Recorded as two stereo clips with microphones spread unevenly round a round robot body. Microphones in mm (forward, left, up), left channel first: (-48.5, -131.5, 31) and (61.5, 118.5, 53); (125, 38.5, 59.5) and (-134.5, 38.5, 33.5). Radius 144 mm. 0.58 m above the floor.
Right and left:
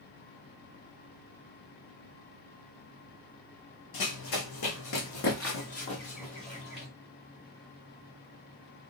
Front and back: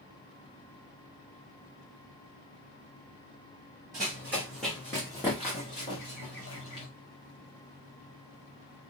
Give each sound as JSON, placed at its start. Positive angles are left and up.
{"t": 3.9, "sound": "running footsteps", "azimuth_deg": -100, "distance_m": 1.5}